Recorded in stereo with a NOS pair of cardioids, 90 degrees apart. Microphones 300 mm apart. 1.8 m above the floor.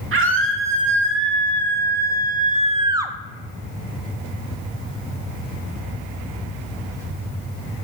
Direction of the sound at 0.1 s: 45° right.